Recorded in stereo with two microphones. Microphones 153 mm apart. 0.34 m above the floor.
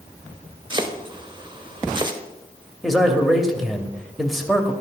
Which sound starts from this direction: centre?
A man speaking, at 2.8 s.